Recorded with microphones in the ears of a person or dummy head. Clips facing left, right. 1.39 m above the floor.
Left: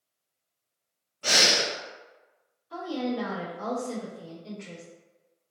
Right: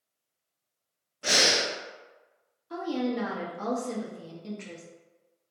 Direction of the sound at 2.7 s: 60° right (ahead or behind).